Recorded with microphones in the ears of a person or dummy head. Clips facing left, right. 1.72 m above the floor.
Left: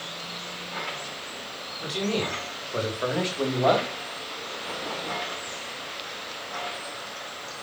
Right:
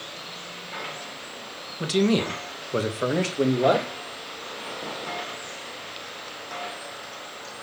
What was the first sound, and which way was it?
A man speaking, 65° right (ahead or behind).